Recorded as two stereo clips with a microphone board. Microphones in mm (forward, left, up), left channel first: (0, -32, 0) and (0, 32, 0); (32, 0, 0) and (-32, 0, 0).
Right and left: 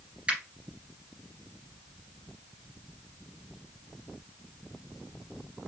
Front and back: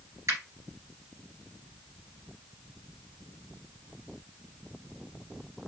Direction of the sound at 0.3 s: 160° left.